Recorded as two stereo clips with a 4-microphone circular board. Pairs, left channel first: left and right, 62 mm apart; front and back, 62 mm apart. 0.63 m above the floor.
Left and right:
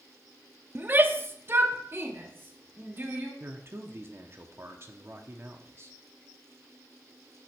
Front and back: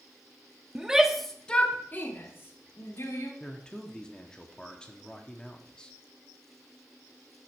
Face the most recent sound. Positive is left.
turn(degrees=-70)